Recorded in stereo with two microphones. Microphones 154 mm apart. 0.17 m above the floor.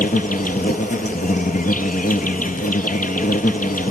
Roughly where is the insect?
Left.